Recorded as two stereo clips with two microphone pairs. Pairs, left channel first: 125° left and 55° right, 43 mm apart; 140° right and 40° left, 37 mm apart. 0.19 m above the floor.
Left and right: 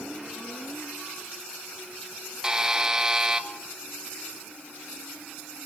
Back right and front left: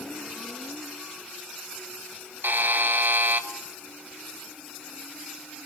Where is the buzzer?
20° left, 0.8 m.